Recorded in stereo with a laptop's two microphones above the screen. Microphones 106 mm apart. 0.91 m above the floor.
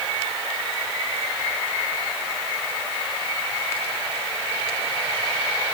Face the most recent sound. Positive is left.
No sound to turn to.